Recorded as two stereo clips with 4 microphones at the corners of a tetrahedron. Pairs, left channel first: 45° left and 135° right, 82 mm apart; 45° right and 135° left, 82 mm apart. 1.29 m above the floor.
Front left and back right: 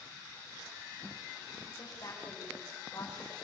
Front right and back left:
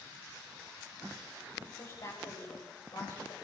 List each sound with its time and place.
1.7 s a woman speaking: straight ahead, 7 m; by 3.3 s 10° right, 5.5 m